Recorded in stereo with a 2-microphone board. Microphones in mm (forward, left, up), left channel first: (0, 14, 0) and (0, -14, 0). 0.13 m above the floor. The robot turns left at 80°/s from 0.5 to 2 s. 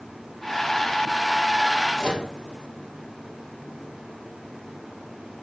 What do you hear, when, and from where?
2.0 s a microwave: 35° left (ahead or behind), 1.9 m; by 2.3 s 40° left (ahead or behind), 1.9 m